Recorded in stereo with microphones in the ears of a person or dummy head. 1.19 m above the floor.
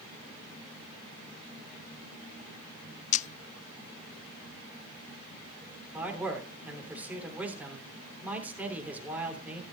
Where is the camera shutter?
40° left (ahead or behind), 0.6 m.